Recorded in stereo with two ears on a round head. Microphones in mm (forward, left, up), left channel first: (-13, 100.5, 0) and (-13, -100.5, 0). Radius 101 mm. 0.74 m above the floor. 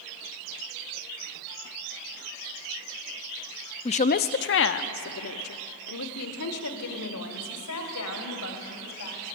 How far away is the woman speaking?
About 0.5 m.